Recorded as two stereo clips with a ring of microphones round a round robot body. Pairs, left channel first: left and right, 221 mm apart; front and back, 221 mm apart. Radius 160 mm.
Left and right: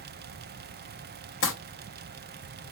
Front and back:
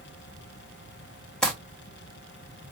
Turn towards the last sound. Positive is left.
turn(degrees=85)